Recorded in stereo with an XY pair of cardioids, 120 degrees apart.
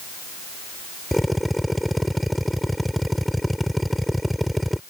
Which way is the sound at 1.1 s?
Straight ahead.